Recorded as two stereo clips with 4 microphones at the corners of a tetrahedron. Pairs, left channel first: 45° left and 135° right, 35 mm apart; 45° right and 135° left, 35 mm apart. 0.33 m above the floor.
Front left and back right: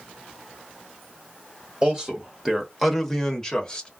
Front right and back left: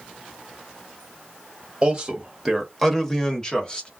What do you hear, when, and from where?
1.8 s a man speaking: straight behind, 0.9 m; by 3.9 s 10° right, 1.0 m